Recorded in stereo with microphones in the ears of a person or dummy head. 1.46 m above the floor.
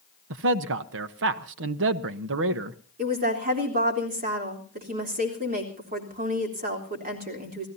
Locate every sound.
0.3 s a man speaking: 60° right (ahead or behind), 1.1 m
3.0 s a woman speaking: 40° right (ahead or behind), 3.5 m